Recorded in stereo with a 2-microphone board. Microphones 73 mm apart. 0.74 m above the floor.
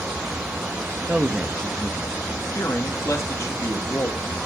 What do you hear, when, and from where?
1.1 s a man speaking: 20° right (ahead or behind), 0.8 m; by 2.1 s 25° left (ahead or behind), 1.2 m
2.5 s a man speaking: 40° left (ahead or behind), 1.4 m